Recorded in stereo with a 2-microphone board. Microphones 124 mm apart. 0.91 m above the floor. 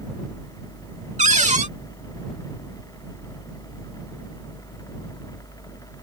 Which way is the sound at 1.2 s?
75° right (ahead or behind).